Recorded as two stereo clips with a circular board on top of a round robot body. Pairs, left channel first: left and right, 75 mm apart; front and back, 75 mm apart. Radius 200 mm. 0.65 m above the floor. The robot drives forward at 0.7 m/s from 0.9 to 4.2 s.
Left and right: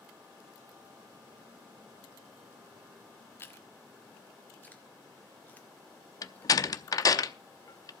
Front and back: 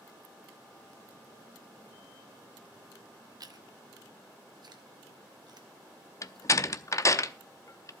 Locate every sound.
3.4 s chewing: 150° left, 1.4 m; by 6.5 s 160° left, 1.9 m
6.2 s a door slam: 50° left, 0.7 m